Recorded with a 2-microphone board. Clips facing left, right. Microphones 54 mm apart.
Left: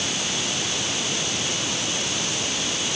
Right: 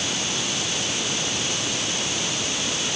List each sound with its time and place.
Only background noise.